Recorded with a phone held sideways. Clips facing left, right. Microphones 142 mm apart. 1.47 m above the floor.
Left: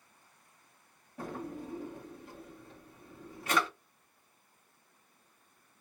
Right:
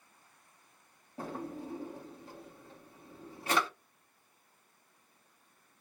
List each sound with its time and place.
1.2 s a drawer: 30° right (ahead or behind), 1.0 m